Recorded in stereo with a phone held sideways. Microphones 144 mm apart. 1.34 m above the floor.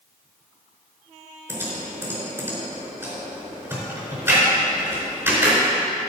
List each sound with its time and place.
1.5 s typing on a keyboard: 15° right (ahead or behind), 4 m